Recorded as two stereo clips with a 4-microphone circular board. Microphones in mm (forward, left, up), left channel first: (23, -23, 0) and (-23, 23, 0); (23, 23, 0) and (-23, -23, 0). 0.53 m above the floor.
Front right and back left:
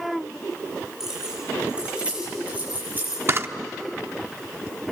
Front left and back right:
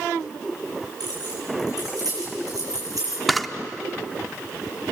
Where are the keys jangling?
140° right, 9 m; by 3.2 s 165° right, 8.5 m.